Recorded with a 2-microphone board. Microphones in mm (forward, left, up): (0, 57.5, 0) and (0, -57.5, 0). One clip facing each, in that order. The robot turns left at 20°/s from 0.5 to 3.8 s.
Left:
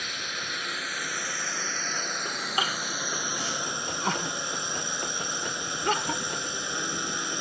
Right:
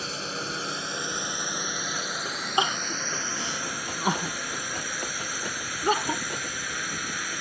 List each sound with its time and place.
0.0 s a drone: 140° right; by 7.4 s 155° left
2.6 s crying: 30° right (ahead or behind); by 6.2 s 15° right (ahead or behind)